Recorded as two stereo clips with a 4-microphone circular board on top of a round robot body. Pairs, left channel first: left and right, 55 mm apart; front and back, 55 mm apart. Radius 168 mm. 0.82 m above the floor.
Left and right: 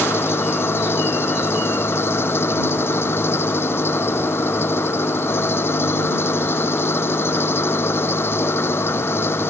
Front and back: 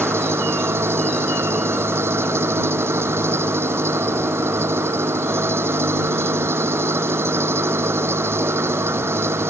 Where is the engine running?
135° left.